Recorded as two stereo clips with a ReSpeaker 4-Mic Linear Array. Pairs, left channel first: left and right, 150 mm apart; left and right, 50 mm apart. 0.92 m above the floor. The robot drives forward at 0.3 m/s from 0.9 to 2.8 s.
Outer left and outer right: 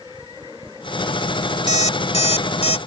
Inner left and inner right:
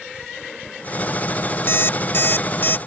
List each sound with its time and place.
1.7 s an alarm clock: 50° left (ahead or behind); by 2.8 s 45° left (ahead or behind)